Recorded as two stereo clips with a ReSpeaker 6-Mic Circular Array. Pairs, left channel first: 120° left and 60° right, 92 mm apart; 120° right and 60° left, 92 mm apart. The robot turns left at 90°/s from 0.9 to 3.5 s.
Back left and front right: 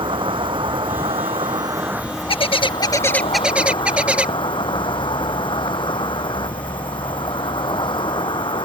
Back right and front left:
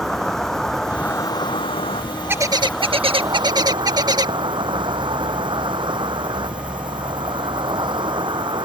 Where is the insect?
35° right; by 8.7 s 90° left.